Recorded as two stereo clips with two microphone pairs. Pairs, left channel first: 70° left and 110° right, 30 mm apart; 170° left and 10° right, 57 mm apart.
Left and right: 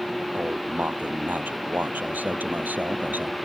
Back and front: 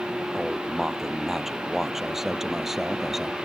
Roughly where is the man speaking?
Right.